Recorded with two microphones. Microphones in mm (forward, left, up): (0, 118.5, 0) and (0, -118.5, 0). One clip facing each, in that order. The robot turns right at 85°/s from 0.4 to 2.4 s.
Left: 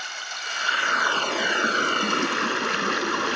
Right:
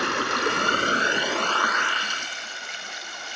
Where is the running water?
80° right; by 3.4 s 90° left.